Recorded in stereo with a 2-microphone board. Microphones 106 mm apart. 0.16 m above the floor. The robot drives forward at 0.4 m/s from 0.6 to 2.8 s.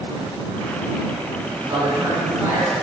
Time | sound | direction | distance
1.7 | a man speaking | 25° right (ahead or behind) | 1.1 m